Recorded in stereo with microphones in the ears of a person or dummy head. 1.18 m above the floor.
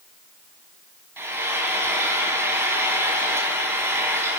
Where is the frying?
10° right (ahead or behind), 4 m.